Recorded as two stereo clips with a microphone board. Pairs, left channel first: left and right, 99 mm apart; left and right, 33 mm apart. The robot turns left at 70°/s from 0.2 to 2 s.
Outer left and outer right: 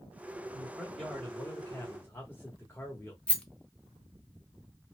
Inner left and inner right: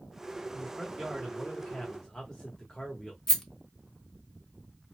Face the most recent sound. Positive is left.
turn(degrees=10)  # may be behind; listen again after turning